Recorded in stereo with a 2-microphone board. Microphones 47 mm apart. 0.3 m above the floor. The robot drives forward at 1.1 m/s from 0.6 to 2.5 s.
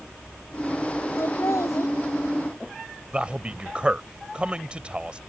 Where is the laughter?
80° left; by 1.9 s 85° left.